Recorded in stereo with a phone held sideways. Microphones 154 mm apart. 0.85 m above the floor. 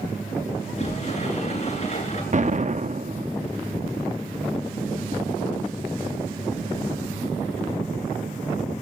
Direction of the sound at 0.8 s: 45° left (ahead or behind).